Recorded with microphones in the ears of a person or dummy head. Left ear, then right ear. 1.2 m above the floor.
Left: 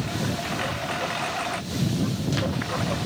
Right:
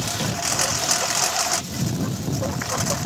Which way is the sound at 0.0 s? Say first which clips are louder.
Right 4 dB; 85° right.